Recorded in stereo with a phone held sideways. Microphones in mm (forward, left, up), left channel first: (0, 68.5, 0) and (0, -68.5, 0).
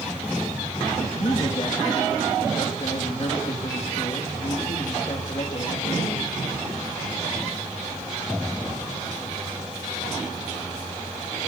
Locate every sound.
1.0 s a man speaking: 45° left (ahead or behind), 2.5 m